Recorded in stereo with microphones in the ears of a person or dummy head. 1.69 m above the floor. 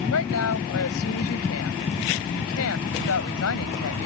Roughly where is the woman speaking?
Left.